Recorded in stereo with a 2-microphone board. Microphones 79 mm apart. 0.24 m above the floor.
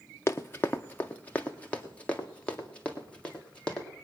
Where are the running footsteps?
35° left (ahead or behind), 0.8 m; by 3.9 s 15° left (ahead or behind), 3.5 m.